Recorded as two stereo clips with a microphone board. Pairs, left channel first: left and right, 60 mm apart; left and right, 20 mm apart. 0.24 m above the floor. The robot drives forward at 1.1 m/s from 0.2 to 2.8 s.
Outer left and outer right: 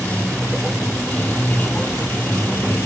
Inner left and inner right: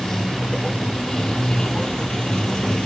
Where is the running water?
20° left (ahead or behind); by 2.9 s 35° left (ahead or behind).